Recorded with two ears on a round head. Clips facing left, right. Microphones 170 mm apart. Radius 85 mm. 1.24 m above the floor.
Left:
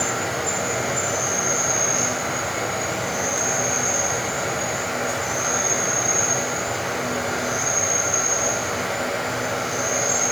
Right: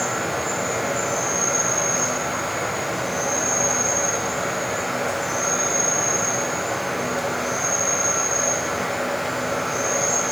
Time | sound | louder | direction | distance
0.0 | an insect | even | 30° right (ahead or behind) | 4 m